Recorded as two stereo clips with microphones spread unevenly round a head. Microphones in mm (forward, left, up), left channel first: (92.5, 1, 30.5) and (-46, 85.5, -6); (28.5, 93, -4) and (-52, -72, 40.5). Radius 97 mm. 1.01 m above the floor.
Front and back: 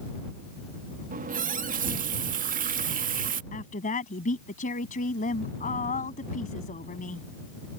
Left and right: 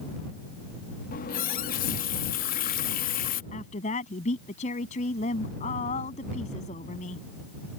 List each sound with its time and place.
1.1 s a running tap: 110° left
3.5 s a woman speaking: 5° left